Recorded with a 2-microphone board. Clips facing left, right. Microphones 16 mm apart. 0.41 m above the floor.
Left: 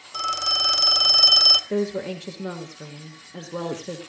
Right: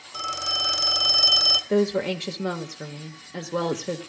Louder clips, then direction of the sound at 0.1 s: Left 3 dB; 15° left (ahead or behind).